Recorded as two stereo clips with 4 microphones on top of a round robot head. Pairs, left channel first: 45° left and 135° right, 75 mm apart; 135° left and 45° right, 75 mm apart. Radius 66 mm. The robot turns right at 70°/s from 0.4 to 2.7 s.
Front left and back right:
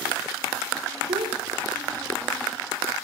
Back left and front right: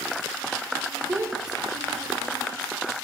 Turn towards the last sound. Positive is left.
turn(degrees=0)